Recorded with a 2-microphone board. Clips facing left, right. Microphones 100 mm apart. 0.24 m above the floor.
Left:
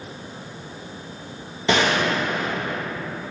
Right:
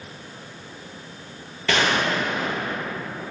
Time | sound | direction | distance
1.7 | a gunshot | 20° left (ahead or behind) | 2.5 m